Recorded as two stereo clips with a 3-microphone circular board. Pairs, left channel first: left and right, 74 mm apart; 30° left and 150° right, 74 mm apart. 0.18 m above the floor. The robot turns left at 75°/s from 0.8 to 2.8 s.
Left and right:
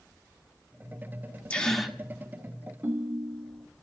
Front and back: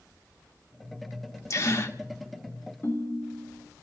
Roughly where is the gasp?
Ahead left.